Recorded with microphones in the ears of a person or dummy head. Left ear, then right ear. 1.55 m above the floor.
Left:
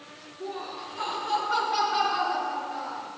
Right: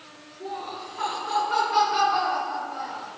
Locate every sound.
0.4 s laughter: 5° left (ahead or behind), 4 m; by 3.1 s 10° right (ahead or behind), 6.5 m